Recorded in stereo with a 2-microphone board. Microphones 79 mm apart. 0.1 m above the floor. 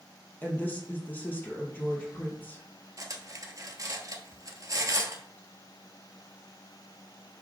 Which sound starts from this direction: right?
Cutlery clinking, at 3.0 s.